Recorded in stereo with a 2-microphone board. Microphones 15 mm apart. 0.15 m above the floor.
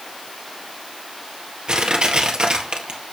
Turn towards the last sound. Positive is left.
turn(degrees=-55)  # may be behind; listen again after turning